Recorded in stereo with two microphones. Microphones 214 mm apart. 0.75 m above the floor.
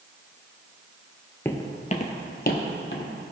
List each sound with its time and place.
1.4 s footsteps: 10° left (ahead or behind), 0.7 m; by 3.1 s 60° left (ahead or behind), 1.4 m